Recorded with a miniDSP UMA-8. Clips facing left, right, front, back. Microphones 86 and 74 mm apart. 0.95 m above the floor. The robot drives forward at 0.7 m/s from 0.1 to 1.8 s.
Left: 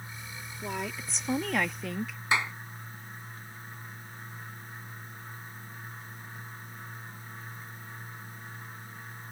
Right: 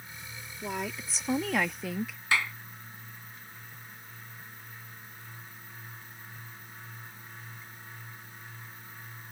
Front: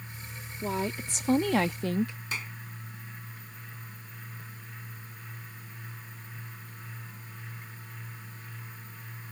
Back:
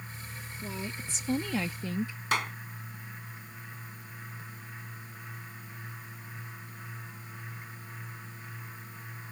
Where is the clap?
160° left.